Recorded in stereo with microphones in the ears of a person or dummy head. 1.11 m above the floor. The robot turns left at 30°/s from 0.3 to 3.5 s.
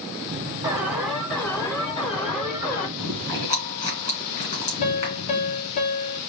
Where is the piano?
40° left (ahead or behind), 1.3 m.